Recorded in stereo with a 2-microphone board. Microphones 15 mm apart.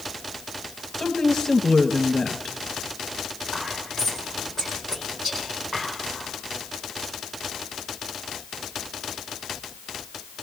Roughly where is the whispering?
Centre.